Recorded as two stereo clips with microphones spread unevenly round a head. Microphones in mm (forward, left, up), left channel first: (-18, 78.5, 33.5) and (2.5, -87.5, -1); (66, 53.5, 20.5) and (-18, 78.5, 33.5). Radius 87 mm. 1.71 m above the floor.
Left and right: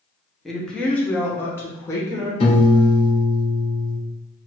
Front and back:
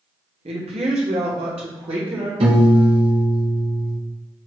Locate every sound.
0.5 s a woman speaking: 175° right, 1.3 m; by 2.3 s 170° left, 2.5 m
2.4 s a piano: 155° left, 1.6 m